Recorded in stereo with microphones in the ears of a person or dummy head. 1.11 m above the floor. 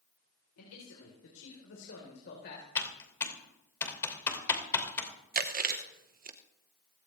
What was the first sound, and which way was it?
A man speaking, 85° left.